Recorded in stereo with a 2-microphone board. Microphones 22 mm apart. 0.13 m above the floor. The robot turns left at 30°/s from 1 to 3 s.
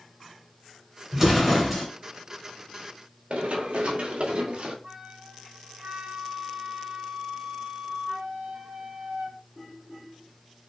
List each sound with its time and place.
1.1 s an explosion: 10° right (ahead or behind), 1.5 m; by 1.9 s centre (ahead or behind), 1.5 m
3.3 s running footsteps: 75° right (ahead or behind), 2.0 m; by 4.7 s 55° right (ahead or behind), 1.5 m
4.8 s a flute: 50° right (ahead or behind), 1.6 m